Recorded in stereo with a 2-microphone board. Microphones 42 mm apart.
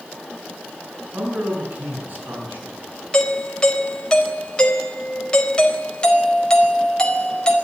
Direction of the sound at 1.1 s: 50° right (ahead or behind).